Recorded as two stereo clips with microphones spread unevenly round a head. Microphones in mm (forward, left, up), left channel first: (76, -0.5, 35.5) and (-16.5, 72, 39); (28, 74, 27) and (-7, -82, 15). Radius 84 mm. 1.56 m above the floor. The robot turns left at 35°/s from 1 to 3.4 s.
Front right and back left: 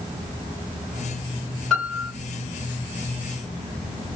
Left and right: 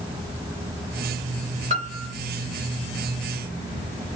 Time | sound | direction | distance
1.7 | a piano | 130° right | 1.3 m